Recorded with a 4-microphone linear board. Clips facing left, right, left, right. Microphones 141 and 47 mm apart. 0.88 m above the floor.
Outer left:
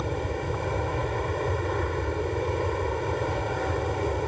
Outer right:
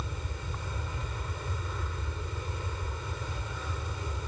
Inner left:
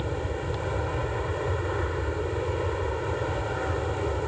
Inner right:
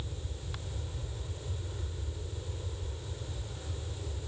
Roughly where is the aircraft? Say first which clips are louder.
Outer left 12 dB, inner left 15 dB; left.